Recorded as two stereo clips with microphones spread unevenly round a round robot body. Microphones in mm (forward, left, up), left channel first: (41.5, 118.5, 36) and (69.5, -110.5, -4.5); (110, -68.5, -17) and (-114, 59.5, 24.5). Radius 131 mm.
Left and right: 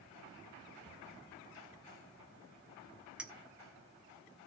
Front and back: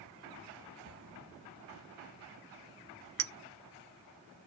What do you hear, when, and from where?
0.8 s an explosion: 160° right, 4.5 m
3.2 s a clink: 170° right, 0.6 m